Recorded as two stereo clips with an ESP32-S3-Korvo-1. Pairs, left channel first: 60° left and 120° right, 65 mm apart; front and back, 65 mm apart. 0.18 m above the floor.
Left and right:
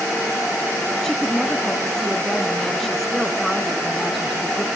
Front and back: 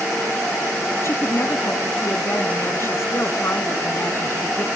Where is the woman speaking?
20° right, 1.8 m.